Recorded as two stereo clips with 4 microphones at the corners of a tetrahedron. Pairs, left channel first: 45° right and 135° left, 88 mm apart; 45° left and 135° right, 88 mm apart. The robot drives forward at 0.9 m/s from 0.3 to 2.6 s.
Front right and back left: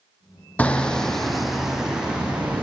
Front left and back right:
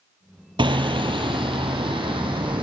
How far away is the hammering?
About 1.8 m.